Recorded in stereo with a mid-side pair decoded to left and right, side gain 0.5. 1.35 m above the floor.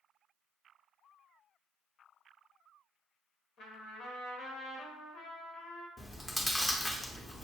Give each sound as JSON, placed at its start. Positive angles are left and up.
{"t": 3.6, "sound": "a trumpet", "azimuth_deg": 65, "distance_m": 1.4}
{"t": 6.0, "sound": "chewing", "azimuth_deg": 15, "distance_m": 0.7}